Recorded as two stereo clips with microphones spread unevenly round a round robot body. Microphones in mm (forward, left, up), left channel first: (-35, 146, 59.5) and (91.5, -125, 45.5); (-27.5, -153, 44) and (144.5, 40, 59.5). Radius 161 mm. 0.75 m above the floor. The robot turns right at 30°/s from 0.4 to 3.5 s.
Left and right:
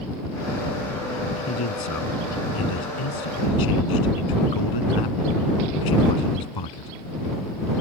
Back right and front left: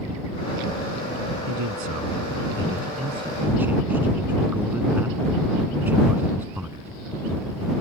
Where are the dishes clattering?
I don't hear dishes clattering.